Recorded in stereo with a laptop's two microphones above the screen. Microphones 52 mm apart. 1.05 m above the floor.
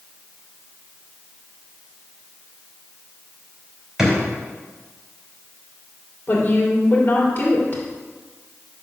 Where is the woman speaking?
35° left (ahead or behind), 3 m.